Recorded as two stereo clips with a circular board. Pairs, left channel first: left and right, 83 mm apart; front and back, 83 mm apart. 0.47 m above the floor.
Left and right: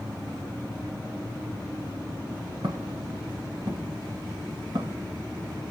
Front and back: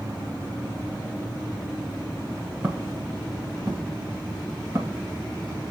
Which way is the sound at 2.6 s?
115° right.